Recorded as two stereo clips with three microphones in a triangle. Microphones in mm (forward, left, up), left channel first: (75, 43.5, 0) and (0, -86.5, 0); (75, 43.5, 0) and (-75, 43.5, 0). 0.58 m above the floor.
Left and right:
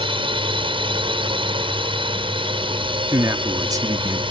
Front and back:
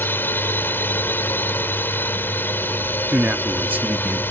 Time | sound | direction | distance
0.0 | a drone | 75° right | ?
3.1 | a man speaking | 125° right | ?